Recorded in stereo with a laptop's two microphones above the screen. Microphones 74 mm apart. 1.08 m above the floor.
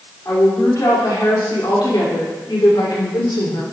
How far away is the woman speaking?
About 3.5 m.